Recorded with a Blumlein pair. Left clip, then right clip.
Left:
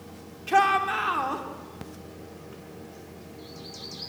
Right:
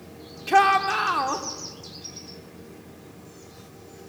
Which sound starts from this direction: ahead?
A shout, at 0.5 s.